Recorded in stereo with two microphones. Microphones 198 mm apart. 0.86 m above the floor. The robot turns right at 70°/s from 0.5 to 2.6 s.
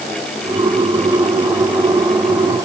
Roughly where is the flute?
I don't hear a flute.